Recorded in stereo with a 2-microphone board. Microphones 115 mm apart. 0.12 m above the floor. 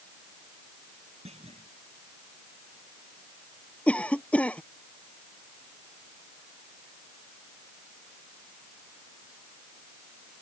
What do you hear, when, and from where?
1.2 s a clunk: 75° right (ahead or behind)
3.9 s a cough: 10° left (ahead or behind)